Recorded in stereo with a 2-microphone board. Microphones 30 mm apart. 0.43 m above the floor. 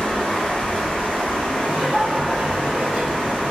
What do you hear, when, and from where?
0.0 s running water: 35° left (ahead or behind), 1.4 m
1.6 s laughter: 35° right (ahead or behind), 0.9 m